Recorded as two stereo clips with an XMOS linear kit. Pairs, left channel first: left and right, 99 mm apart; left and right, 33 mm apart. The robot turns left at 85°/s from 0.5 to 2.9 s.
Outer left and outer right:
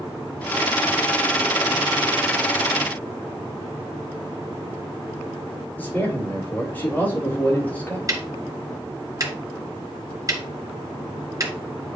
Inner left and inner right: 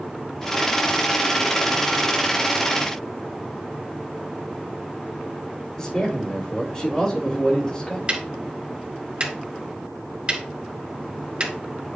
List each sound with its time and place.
5.8 s a man speaking: 20° left (ahead or behind), 5.5 m
8.1 s ticking: 35° right (ahead or behind), 1.6 m